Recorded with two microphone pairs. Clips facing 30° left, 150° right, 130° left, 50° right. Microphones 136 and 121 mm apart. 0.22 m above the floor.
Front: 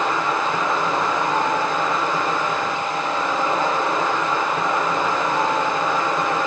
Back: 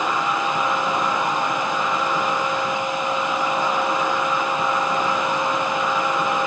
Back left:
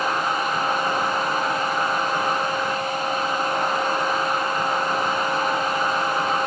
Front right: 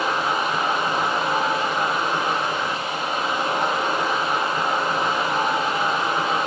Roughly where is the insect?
Ahead.